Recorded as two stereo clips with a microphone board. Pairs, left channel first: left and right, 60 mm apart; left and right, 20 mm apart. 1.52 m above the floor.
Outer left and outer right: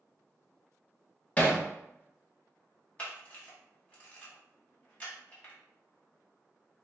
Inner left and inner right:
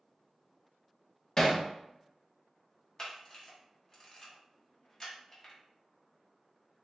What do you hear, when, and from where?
1.4 s hammering: 20° left (ahead or behind), 0.9 m
3.0 s a camera shutter: 25° left (ahead or behind), 1.4 m